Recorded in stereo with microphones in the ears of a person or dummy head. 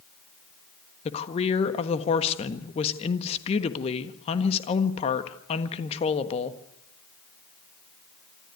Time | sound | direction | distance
1.1 | a woman speaking | 35° left (ahead or behind) | 1.4 m